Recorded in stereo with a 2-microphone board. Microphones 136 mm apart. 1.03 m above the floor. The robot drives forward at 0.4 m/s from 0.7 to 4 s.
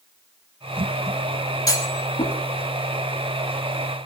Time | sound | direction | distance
1.7 | a clunk | 25° left (ahead or behind) | 4 m